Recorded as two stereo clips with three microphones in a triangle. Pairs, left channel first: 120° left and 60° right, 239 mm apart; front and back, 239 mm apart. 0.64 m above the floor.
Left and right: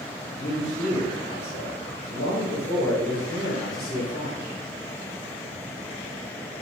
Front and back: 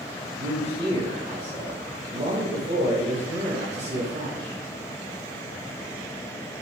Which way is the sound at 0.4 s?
140° left.